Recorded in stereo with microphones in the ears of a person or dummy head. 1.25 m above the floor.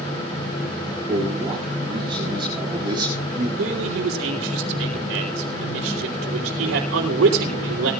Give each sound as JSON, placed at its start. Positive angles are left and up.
{"t": 1.1, "sound": "a man speaking", "side_deg": -30, "distance_m": 8.0}
{"t": 3.6, "sound": "a man speaking", "side_deg": -80, "distance_m": 3.0}